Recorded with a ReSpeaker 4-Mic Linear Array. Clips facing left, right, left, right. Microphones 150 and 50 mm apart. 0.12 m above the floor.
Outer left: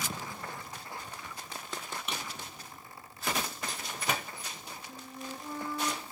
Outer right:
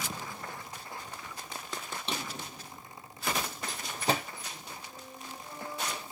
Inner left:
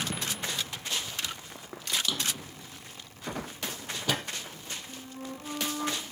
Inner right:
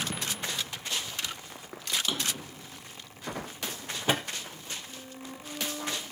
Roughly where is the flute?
Left.